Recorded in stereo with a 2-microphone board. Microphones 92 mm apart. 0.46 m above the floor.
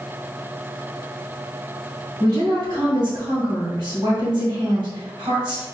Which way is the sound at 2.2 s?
60° right (ahead or behind).